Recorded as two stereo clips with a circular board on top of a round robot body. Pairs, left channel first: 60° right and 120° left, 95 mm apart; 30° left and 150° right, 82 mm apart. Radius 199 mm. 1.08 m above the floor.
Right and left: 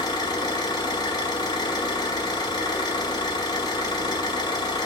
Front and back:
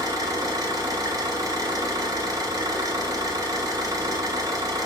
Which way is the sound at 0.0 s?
110° right.